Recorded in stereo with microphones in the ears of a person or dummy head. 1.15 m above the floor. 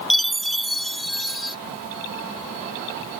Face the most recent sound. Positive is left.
turn(degrees=0)  # may be behind; listen again after turning